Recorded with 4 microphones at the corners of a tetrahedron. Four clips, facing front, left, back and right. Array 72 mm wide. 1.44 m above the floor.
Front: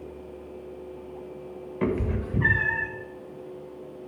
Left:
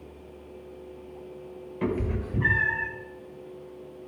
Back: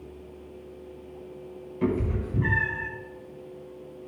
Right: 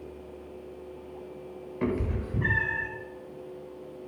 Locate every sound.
1.8 s a cat meowing: 15° right, 1.9 m; by 2.9 s 10° left, 2.5 m